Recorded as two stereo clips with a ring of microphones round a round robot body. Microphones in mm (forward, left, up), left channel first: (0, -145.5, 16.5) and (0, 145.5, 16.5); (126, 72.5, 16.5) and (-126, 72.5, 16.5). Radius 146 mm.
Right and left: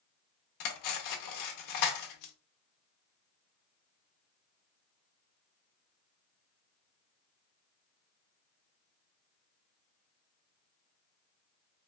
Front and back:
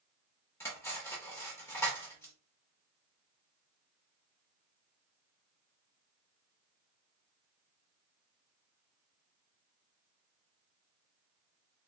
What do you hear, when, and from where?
0.6 s cutlery clinking: 80° right, 0.8 m